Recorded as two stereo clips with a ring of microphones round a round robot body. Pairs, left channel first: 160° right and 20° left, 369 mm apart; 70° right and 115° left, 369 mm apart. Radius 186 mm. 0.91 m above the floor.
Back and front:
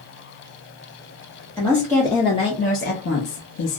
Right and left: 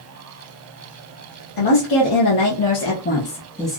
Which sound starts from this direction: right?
A woman speaking, at 1.6 s.